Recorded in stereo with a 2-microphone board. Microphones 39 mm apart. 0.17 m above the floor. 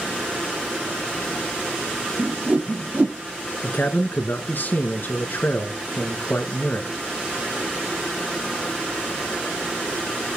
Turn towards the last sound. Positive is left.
turn(degrees=55)  # may be behind; listen again after turning